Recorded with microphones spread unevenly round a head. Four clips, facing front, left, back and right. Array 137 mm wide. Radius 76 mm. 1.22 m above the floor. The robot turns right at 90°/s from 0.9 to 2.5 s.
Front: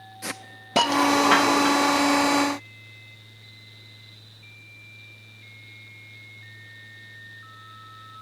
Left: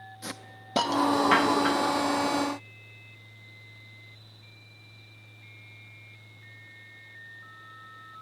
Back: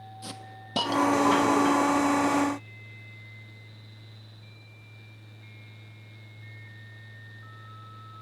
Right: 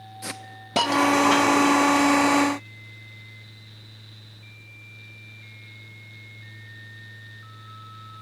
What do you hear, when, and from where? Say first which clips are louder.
0.2 s a hiss: right 4 dB, front 8 dB; 40° right, 0.7 m; by 2.0 s 55° left, 0.7 m